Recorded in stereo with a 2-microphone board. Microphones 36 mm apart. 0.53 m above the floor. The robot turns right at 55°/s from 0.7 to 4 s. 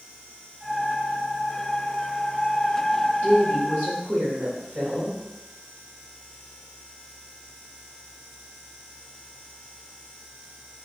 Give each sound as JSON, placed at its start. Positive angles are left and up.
{"t": 3.2, "sound": "a woman speaking", "azimuth_deg": -120, "distance_m": 1.3}